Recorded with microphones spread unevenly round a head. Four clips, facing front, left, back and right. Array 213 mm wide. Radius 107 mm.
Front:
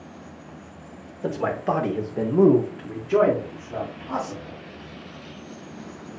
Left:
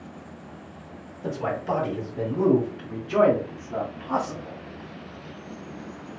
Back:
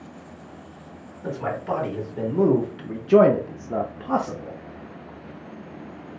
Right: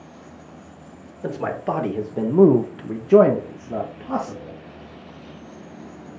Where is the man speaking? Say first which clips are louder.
Right 2 dB, front 3 dB; 45° right, 1.3 m; by 4.6 s 165° right, 1.2 m.